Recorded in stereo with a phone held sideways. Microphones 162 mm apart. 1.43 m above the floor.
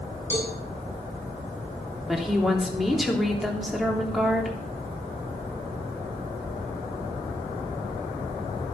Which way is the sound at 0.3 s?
15° right (ahead or behind).